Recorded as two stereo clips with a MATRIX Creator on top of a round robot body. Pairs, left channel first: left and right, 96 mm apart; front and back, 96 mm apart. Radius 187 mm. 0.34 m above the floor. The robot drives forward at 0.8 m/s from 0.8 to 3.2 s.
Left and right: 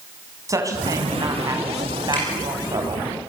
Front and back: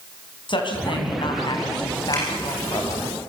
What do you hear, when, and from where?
0.5 s a woman speaking: 35° right, 5 m; by 3.1 s 55° right, 3.5 m
2.1 s dripping: 55° left, 8.5 m